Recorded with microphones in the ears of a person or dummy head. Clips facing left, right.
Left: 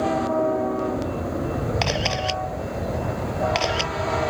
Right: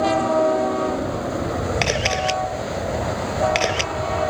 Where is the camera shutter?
35° right (ahead or behind).